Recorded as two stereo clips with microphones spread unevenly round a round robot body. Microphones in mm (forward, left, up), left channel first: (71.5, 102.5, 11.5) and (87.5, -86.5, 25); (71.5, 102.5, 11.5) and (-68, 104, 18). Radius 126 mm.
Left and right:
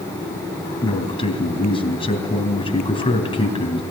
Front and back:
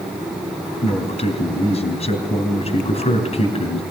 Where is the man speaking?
35° left, 3 m.